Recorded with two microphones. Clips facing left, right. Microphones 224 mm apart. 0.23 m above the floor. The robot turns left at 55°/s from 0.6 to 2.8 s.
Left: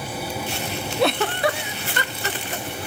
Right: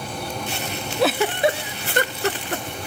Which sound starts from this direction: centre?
A giggle, at 1.0 s.